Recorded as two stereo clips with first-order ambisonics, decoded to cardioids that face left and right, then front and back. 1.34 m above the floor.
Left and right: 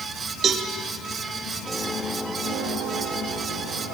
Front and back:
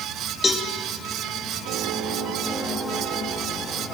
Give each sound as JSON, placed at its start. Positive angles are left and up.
{"t": 0.4, "sound": "a cowbell", "azimuth_deg": -60, "distance_m": 0.8}